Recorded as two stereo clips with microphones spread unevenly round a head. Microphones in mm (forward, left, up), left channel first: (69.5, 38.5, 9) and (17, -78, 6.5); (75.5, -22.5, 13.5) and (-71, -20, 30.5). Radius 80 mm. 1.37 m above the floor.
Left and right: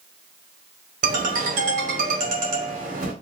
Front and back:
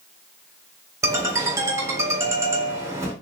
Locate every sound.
1.0 s a ringtone: 115° right, 1.8 m